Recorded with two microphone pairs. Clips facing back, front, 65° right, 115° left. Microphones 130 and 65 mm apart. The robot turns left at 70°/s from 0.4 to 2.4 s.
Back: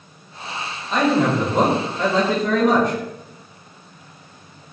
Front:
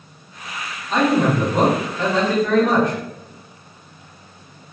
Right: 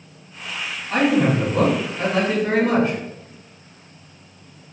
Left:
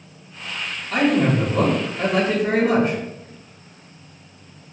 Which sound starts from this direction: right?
A man speaking, at 0.9 s.